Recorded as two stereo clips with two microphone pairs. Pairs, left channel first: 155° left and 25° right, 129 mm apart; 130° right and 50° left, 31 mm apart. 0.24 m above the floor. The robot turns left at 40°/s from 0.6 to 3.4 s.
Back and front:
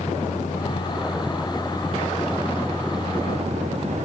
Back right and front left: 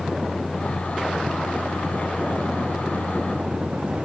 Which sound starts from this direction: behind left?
A vehicle, at 0.0 s.